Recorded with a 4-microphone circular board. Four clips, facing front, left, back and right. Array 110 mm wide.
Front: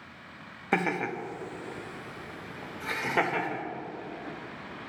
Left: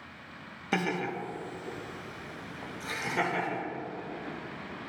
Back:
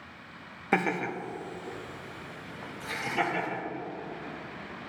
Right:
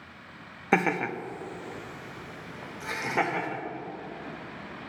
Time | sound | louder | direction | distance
0.7 | laughter | right 5 dB, even | 95° right | 0.7 m